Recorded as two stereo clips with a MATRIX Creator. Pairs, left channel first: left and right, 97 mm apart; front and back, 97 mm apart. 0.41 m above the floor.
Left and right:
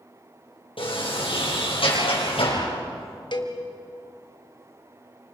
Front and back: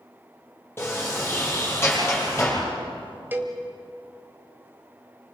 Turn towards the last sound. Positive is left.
turn(degrees=115)